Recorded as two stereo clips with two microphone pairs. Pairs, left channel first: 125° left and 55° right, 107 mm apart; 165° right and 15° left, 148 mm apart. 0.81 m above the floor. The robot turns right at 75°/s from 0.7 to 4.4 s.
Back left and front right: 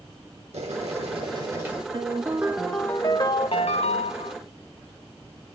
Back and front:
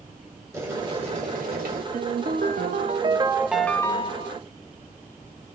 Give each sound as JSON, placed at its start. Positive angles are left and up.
{"t": 0.5, "sound": "boiling", "azimuth_deg": -55, "distance_m": 1.8}
{"t": 1.9, "sound": "a ringtone", "azimuth_deg": -15, "distance_m": 0.6}